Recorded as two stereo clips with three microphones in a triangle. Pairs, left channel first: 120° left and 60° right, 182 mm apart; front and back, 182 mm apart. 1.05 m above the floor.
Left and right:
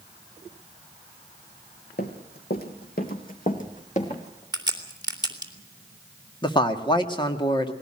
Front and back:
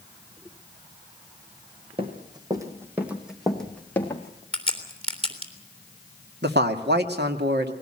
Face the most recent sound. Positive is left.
turn(degrees=-175)